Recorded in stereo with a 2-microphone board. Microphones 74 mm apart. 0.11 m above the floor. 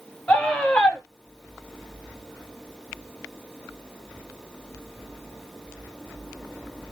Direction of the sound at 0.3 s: 15° left (ahead or behind).